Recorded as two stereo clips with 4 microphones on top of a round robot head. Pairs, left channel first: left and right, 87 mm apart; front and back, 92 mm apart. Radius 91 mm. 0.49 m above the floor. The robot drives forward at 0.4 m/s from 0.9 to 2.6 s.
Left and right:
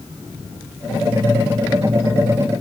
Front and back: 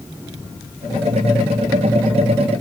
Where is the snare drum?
I don't hear a snare drum.